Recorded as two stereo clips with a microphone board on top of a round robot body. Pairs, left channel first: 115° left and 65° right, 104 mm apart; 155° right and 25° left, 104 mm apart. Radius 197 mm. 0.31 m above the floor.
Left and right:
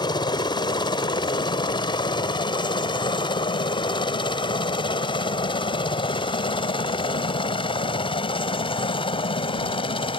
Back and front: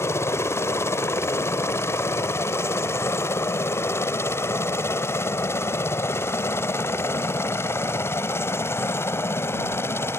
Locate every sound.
0.0 s a helicopter: 145° left; by 10.2 s 140° left